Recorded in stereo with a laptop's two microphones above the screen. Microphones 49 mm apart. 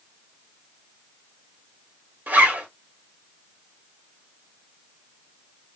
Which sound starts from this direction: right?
A zipper, at 2.3 s.